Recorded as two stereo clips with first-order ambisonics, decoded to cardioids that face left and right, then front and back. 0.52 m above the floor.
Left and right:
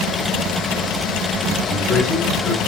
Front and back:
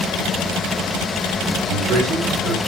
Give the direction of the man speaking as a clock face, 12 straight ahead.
7 o'clock.